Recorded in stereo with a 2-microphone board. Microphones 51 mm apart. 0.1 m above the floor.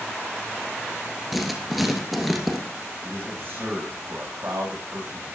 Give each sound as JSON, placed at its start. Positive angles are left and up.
{"t": 1.3, "sound": "writing", "side_deg": 0, "distance_m": 1.5}
{"t": 3.0, "sound": "a man speaking", "side_deg": -55, "distance_m": 5.0}